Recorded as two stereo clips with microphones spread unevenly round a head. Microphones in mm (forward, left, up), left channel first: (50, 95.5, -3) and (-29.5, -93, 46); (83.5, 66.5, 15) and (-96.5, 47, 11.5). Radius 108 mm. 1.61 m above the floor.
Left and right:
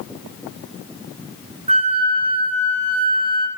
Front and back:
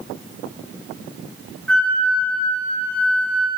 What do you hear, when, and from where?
1.7 s a flute: 75° right, 0.5 m